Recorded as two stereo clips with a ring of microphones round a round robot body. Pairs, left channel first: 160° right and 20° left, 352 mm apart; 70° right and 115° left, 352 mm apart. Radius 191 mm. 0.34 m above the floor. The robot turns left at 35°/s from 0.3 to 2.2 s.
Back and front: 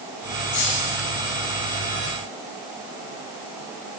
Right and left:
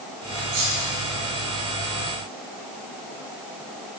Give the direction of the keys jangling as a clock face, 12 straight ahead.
7 o'clock.